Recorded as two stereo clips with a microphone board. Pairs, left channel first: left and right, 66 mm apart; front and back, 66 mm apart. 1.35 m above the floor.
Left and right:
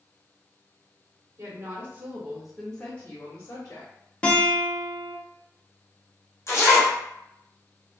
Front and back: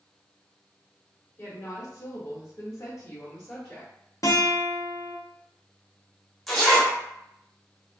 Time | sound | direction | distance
1.4 | a woman speaking | 50° right | 0.9 m
4.2 | a guitar | 20° left | 0.7 m
6.5 | a zipper | 75° left | 0.9 m